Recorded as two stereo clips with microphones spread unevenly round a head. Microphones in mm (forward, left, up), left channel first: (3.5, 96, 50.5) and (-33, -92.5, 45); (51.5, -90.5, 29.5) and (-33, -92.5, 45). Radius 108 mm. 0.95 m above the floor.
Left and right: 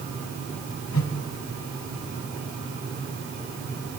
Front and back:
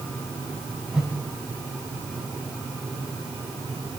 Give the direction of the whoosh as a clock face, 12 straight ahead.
9 o'clock.